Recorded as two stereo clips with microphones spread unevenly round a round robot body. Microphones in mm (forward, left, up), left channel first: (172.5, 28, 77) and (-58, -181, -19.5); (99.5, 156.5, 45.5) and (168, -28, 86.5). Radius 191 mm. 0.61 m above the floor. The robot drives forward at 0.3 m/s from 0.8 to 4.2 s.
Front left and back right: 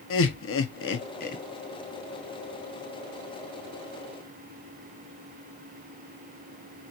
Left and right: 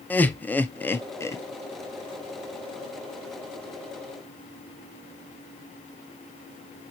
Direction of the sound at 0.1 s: 75° left.